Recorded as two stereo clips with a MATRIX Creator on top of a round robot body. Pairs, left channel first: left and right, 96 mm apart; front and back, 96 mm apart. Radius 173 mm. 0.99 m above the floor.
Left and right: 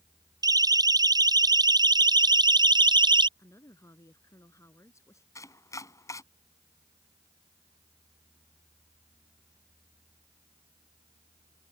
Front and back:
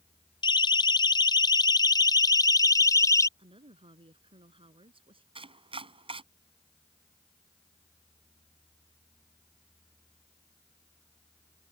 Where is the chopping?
150° left.